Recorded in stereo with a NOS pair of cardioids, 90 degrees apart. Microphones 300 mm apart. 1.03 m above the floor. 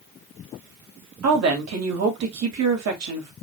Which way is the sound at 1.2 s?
60° right.